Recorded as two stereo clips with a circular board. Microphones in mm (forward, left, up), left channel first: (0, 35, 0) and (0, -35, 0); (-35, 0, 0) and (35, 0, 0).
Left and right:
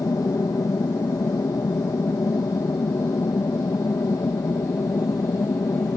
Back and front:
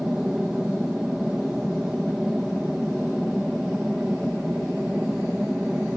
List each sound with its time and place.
0.0 s an aircraft: 80° left